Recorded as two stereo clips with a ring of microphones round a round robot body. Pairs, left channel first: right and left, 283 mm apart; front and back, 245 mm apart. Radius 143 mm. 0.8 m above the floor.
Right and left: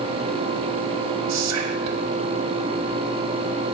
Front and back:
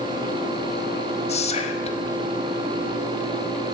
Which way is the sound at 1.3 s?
65° left.